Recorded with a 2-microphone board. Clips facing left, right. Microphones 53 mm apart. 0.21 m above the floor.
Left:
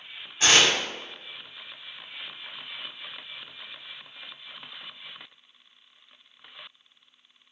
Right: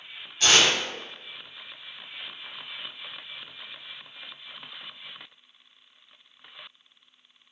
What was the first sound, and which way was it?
Tearing paper, 25° left (ahead or behind).